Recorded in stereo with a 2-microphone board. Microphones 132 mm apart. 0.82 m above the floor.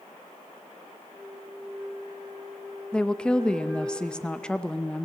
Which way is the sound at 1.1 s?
35° right (ahead or behind).